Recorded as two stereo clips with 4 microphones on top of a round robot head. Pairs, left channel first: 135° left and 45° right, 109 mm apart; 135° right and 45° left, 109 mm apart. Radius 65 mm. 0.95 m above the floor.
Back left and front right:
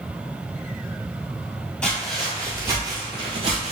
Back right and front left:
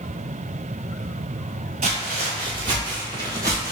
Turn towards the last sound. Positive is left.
turn(degrees=-20)